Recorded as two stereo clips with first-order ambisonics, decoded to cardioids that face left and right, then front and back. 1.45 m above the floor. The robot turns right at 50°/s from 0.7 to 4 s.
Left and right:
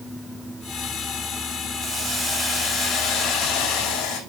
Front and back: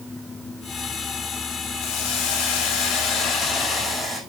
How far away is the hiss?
About 5 m.